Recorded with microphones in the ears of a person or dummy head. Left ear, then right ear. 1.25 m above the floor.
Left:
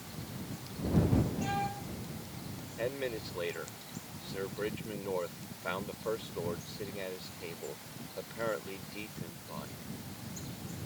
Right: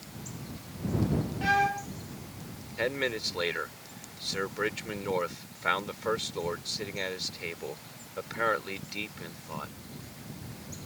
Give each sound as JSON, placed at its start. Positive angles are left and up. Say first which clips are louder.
{"t": 1.4, "sound": "a violin", "louder": "right 9 dB", "side_deg": -60}
{"t": 2.8, "sound": "a man speaking", "louder": "right 6 dB", "side_deg": -55}